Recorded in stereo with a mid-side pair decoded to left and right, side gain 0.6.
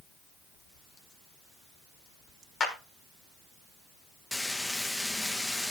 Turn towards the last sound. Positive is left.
turn(degrees=10)